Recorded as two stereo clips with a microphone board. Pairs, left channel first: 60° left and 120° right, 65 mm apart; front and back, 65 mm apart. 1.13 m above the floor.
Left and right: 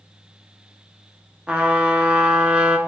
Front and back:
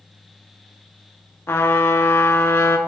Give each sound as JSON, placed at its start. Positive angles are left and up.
{"t": 1.5, "sound": "a trumpet", "azimuth_deg": -50, "distance_m": 0.9}